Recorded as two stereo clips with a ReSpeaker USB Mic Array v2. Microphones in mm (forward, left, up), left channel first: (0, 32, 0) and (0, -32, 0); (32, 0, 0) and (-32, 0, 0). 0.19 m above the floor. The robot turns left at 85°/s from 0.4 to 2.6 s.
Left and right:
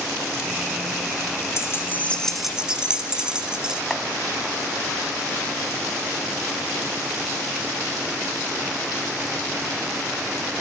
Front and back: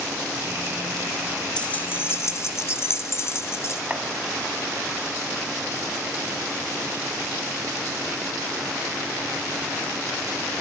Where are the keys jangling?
70° left, 1.1 m; by 3.8 s 15° right, 1.1 m.